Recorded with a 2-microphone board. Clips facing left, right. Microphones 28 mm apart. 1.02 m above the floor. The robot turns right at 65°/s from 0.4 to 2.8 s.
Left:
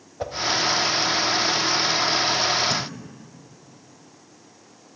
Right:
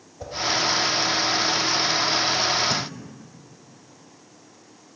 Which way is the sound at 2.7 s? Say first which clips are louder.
Even; 15° right (ahead or behind).